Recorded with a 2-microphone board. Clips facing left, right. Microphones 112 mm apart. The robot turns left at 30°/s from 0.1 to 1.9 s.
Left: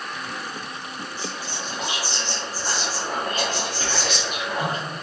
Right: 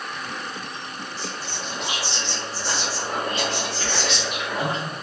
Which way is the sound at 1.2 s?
45° left (ahead or behind).